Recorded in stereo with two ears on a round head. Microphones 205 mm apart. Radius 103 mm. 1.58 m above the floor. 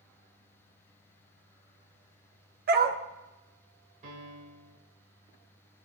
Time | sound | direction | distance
2.7 | a dog barking | 40° right (ahead or behind) | 1.5 m
4.0 | a piano | 35° right (ahead or behind) | 3.5 m